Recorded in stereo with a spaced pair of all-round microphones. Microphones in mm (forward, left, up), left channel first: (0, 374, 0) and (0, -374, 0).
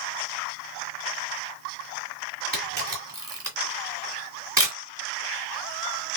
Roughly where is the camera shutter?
Right.